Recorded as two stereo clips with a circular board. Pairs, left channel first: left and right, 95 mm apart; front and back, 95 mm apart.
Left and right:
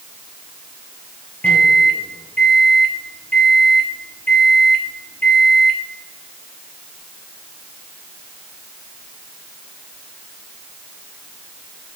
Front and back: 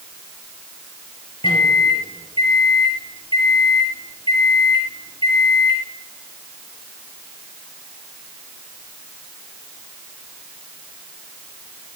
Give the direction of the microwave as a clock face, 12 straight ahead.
11 o'clock.